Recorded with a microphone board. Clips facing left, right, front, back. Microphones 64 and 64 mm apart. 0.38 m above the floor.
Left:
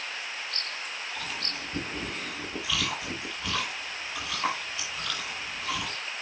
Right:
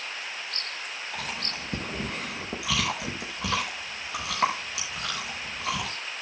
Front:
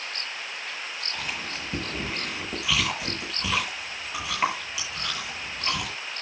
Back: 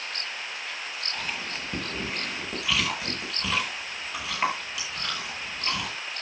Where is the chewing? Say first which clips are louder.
Right 1 dB, even; 90° right, 6.5 m.